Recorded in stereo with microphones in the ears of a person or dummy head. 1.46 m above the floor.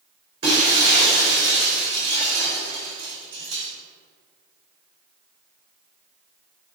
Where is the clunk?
I don't hear a clunk.